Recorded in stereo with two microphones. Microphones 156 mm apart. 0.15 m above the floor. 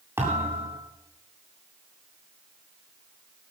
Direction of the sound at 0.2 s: 15° right (ahead or behind).